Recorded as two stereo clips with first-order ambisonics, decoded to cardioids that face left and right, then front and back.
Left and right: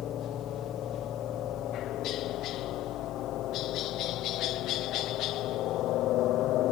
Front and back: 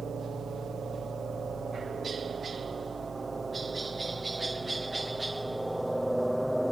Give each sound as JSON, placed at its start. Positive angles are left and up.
{"t": 0.0, "sound": "a helicopter", "azimuth_deg": 125}